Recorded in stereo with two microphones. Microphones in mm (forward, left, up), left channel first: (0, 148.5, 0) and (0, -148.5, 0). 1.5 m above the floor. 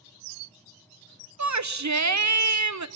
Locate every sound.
1.4 s a shout: 65° right (ahead or behind), 0.8 m